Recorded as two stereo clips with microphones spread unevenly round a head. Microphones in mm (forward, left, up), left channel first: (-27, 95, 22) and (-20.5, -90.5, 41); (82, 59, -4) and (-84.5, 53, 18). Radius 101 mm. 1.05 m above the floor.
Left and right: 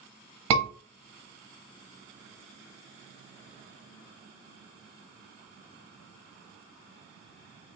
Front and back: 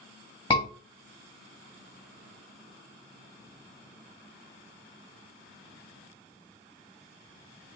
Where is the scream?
100° right, 1.3 m.